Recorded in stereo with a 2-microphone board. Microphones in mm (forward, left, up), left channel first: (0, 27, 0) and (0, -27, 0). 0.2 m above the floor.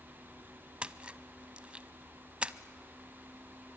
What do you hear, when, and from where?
0.8 s a splash: 20° right (ahead or behind), 0.6 m